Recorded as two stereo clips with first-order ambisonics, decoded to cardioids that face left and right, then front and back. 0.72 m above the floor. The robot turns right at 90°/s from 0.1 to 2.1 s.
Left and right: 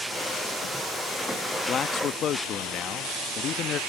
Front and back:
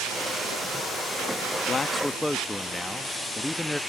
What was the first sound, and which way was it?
A man speaking, 45° left.